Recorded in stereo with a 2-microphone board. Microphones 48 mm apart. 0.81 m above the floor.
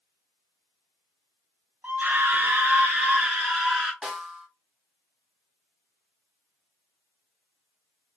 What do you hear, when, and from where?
1.8 s a scream: 40° right (ahead or behind), 0.7 m; by 3.9 s 5° right (ahead or behind), 0.9 m
4.0 s a snare drum: 15° right (ahead or behind), 0.9 m